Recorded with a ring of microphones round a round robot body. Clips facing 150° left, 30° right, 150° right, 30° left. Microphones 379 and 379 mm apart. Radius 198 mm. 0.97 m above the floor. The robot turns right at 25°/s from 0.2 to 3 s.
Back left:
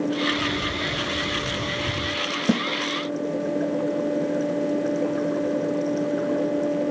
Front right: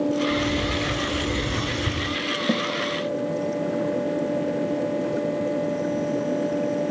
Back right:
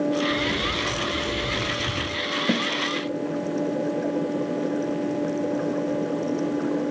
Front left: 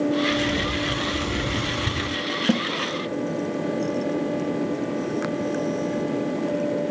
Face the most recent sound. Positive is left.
turn(degrees=105)